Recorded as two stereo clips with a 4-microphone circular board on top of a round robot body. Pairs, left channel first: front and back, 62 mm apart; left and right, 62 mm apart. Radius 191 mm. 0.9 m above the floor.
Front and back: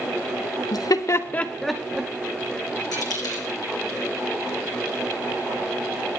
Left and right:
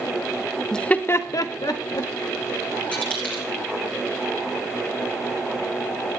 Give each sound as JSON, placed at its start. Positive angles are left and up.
{"t": 0.7, "sound": "laughter", "azimuth_deg": 10, "distance_m": 1.2}
{"t": 2.9, "sound": "a dropped coin", "azimuth_deg": 20, "distance_m": 2.5}